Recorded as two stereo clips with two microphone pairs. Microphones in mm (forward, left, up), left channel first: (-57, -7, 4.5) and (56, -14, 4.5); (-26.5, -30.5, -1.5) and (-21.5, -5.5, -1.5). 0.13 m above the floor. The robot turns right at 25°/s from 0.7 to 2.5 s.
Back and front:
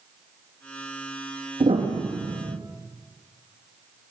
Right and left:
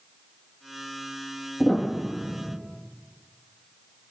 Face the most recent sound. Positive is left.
turn(degrees=10)